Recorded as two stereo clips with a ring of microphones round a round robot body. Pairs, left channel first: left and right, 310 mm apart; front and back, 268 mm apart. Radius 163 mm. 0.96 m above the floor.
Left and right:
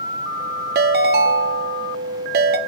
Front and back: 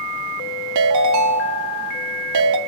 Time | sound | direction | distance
0.8 | a ringtone | 150° right | 0.6 m